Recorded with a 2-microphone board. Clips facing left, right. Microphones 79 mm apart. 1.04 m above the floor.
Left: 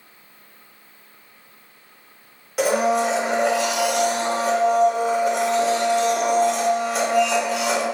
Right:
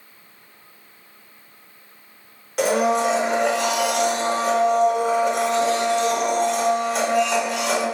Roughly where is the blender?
Centre.